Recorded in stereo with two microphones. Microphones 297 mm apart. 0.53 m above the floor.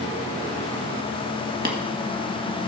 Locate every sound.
1.6 s tapping: 30° right (ahead or behind), 1.5 m